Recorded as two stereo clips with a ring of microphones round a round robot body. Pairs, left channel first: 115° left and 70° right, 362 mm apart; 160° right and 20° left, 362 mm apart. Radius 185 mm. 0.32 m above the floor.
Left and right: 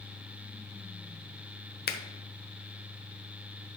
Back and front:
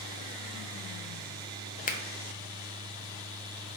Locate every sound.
1.9 s a finger snap: 150° left, 1.0 m